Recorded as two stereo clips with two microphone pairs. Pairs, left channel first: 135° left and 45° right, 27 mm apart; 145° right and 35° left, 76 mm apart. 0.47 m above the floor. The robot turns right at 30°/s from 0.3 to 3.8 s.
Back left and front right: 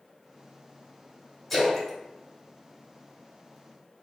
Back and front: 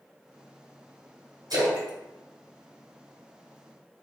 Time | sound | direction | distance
1.5 | a splash | 45° left | 1.6 m